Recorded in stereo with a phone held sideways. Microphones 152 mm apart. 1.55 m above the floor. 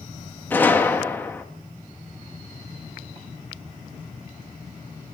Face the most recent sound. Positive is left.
turn(degrees=10)  # may be behind; listen again after turning